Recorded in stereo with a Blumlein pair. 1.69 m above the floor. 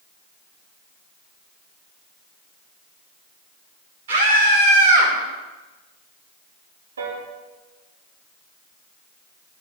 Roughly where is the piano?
Right.